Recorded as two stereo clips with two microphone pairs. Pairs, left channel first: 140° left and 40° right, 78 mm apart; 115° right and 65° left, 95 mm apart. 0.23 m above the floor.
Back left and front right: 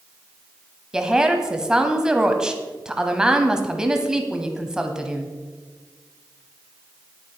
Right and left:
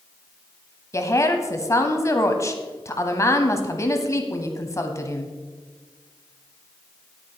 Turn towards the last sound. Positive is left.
turn(degrees=-110)